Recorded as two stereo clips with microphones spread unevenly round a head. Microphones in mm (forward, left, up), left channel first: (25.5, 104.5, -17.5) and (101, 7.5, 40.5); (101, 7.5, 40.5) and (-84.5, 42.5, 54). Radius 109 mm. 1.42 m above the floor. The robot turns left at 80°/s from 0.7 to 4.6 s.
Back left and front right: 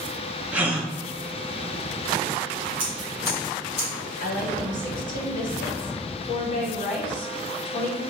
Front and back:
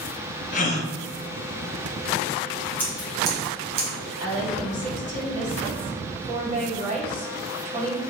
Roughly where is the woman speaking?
Behind left.